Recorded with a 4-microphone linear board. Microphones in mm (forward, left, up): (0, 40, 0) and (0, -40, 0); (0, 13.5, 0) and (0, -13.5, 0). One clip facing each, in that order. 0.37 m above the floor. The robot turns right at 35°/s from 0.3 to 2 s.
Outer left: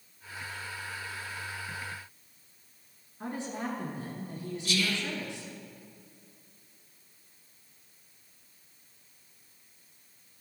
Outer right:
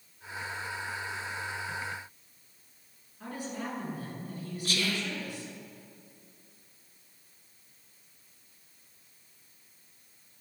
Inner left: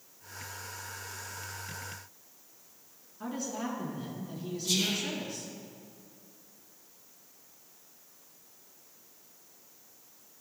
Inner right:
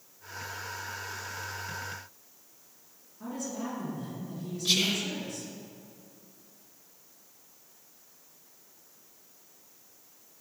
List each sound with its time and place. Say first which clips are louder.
3.2 s a woman speaking: outer left 2 dB, even; 25° left (ahead or behind), 3.5 m
4.7 s whispering: outer left 1 dB, inner right 4 dB; 45° right (ahead or behind), 1.1 m